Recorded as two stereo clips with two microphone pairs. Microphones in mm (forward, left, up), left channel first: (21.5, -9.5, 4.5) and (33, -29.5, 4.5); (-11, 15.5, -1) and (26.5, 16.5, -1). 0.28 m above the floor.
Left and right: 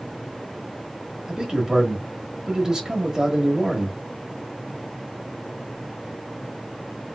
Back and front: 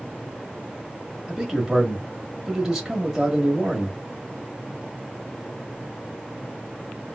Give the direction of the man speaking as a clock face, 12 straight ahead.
2 o'clock.